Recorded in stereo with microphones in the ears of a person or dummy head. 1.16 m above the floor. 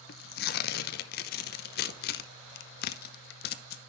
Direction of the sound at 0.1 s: 60° left (ahead or behind).